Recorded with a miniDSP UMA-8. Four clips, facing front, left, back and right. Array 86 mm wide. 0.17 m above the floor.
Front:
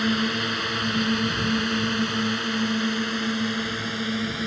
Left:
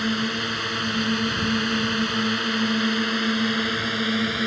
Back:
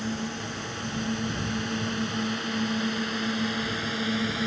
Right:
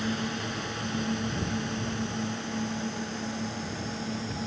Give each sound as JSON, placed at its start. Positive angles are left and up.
{"t": 0.0, "sound": "a drone", "azimuth_deg": 35}